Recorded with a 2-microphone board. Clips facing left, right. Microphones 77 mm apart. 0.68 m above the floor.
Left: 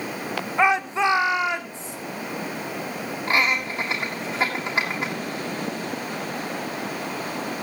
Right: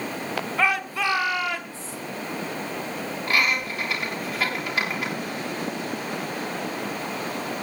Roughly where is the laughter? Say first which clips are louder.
Left 2 dB; left.